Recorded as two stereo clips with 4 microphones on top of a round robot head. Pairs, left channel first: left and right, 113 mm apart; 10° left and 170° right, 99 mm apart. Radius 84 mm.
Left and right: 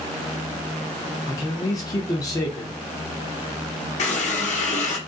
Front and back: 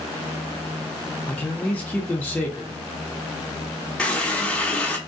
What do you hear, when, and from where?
1.3 s a man speaking: 75° left, 0.8 m
4.0 s a running tap: 90° left, 1.0 m